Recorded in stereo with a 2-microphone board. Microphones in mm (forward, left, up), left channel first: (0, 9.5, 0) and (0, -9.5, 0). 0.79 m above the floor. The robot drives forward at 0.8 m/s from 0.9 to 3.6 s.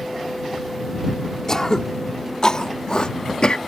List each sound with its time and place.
1.5 s throat clearing: 30° left (ahead or behind); by 3.6 s 55° left (ahead or behind)